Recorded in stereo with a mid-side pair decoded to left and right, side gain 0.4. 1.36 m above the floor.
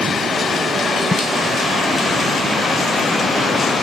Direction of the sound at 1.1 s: 20° left.